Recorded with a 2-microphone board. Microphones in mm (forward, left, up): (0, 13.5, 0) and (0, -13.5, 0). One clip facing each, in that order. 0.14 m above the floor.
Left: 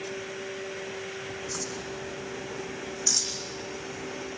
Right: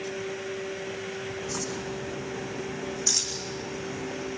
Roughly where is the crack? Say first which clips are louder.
Right 2 dB; centre.